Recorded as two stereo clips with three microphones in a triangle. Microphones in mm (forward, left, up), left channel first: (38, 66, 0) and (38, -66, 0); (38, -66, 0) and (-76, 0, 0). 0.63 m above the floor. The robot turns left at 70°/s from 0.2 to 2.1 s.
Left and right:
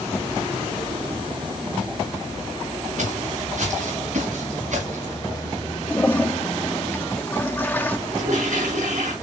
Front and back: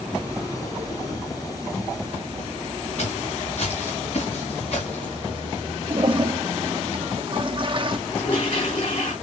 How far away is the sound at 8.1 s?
About 7 m.